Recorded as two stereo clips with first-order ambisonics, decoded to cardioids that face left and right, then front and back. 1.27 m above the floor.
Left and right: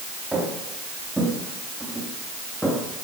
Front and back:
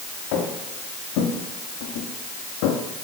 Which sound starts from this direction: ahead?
Footsteps, at 0.3 s.